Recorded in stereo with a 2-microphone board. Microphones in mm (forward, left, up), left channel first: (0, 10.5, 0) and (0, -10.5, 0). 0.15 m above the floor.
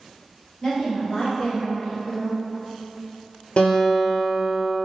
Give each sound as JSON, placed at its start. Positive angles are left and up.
{"t": 0.6, "sound": "a woman speaking", "side_deg": 25, "distance_m": 1.9}
{"t": 3.6, "sound": "a guitar", "side_deg": 75, "distance_m": 0.9}